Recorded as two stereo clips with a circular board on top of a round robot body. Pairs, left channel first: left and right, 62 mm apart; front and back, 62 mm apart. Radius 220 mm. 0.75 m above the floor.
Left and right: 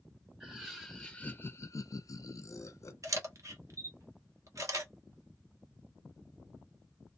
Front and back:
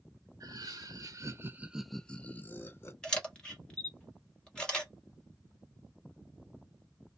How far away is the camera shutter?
About 1.4 m.